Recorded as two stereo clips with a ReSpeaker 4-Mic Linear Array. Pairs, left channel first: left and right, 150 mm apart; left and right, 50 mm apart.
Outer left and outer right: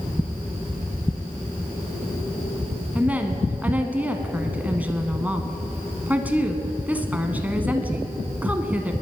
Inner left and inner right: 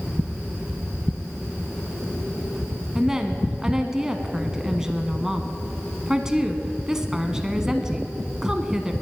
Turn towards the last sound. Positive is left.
turn(degrees=-10)  # may be behind; listen again after turning